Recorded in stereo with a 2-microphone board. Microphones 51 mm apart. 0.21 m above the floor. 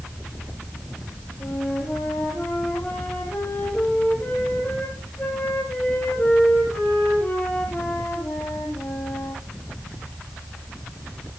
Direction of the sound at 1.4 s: 35° left (ahead or behind).